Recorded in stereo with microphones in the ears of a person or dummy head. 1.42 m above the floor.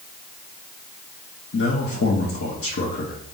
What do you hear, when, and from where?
1.5 s a man speaking: 70° left (ahead or behind), 0.7 m